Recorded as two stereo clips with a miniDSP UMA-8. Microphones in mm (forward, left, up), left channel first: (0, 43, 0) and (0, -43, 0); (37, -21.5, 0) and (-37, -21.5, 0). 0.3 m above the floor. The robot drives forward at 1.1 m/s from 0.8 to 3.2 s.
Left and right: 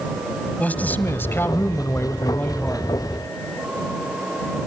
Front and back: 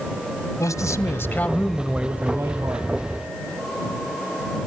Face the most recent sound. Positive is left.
turn(degrees=160)